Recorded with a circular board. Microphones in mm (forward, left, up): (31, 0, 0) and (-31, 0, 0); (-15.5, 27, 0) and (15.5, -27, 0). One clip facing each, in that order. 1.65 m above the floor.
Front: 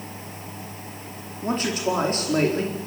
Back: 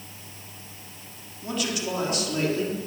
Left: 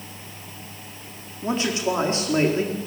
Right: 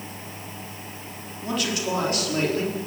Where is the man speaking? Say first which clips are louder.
Front 5 dB, left 3 dB; 55° left, 4.5 m.